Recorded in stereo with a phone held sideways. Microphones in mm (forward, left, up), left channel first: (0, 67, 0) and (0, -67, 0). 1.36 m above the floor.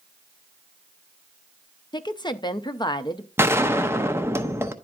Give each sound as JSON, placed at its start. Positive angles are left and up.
{"t": 1.9, "sound": "a woman speaking", "side_deg": 35, "distance_m": 0.6}
{"t": 3.4, "sound": "a gunshot", "side_deg": -20, "distance_m": 0.7}